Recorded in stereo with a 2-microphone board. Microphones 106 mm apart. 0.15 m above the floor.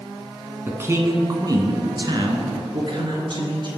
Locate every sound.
0.7 s a man speaking: 20° right (ahead or behind), 1.4 m; by 3.7 s 50° right (ahead or behind), 2.5 m